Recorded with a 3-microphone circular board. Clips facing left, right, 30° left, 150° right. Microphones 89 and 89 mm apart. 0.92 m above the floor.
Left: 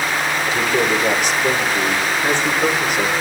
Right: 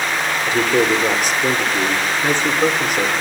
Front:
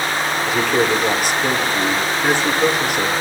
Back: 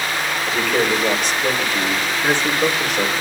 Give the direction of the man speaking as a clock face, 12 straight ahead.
2 o'clock.